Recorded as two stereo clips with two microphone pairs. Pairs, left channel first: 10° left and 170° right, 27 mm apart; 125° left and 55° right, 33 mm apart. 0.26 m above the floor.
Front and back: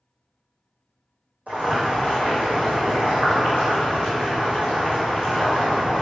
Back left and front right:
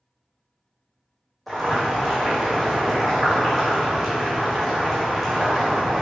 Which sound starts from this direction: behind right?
Boiling, at 1.5 s.